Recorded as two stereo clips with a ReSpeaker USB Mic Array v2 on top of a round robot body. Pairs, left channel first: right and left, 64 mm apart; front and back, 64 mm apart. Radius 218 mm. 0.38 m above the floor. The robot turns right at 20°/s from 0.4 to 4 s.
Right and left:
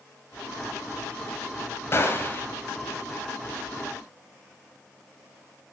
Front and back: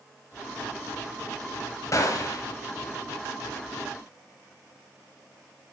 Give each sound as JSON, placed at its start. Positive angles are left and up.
{"t": 1.9, "sound": "a gunshot", "azimuth_deg": -40, "distance_m": 1.3}